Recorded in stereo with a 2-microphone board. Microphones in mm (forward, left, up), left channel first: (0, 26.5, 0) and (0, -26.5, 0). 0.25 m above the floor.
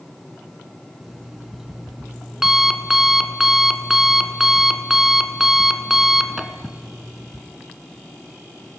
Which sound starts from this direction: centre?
An alarm clock, at 1.0 s.